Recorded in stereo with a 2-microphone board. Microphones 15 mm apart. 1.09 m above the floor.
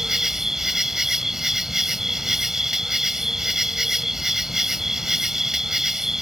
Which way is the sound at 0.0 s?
25° right (ahead or behind).